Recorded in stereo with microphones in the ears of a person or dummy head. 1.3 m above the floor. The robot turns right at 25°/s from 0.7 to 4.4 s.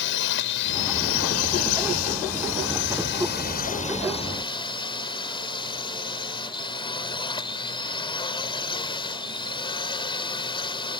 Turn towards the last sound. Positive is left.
turn(degrees=160)